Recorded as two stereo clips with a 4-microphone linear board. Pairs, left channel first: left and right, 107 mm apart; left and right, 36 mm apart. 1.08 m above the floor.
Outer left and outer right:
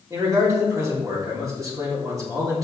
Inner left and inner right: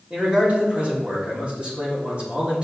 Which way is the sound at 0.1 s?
30° right (ahead or behind).